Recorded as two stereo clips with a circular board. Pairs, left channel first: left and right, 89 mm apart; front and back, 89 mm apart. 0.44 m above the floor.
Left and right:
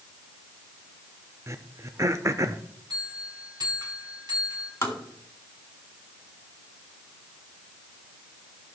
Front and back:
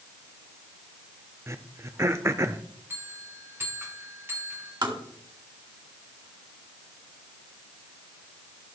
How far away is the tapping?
About 2 m.